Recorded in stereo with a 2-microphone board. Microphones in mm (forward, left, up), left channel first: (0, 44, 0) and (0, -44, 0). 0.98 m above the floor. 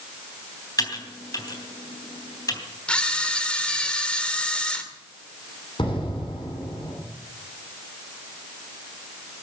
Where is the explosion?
65° left (ahead or behind), 8.5 m.